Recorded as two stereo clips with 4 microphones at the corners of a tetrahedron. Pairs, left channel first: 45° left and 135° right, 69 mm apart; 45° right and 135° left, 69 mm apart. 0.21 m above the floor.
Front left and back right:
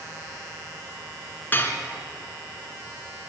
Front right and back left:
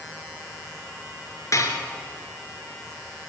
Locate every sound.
1.5 s dishes clattering: 15° right, 2 m